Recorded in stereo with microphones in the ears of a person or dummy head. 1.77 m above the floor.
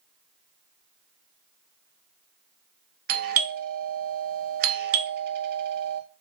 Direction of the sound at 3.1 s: 50° right (ahead or behind).